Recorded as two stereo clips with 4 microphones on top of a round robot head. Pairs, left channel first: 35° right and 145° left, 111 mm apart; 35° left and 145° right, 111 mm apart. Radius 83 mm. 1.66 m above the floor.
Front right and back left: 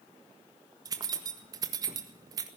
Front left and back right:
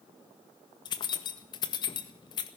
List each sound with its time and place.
0.8 s keys jangling: 85° left, 1.7 m